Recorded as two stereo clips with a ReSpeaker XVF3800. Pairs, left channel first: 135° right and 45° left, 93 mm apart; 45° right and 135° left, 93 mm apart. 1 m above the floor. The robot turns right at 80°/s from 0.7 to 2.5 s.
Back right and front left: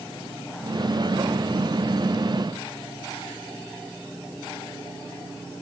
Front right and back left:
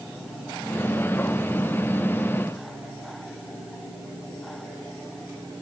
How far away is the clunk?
I don't hear a clunk.